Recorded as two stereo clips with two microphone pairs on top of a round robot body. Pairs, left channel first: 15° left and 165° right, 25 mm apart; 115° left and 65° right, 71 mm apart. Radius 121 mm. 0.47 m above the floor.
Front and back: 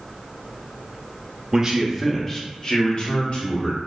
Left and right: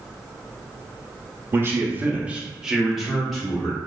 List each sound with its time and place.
1.5 s a man speaking: 115° right, 0.7 m; by 3.8 s 40° left, 1.6 m